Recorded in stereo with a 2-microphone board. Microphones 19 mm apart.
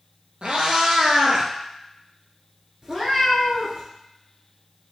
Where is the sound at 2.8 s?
35° right (ahead or behind), 1.3 m.